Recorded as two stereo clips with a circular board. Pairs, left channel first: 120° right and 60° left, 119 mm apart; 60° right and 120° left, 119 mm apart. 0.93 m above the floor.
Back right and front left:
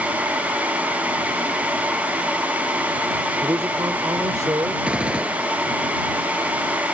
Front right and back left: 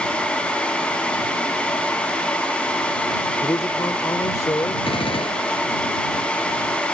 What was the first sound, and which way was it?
A man speaking, 5° right.